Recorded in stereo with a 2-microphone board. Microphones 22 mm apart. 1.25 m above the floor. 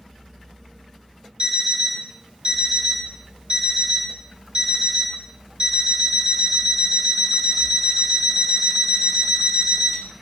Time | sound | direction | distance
1.4 | an alarm clock | 45° right (ahead or behind) | 0.7 m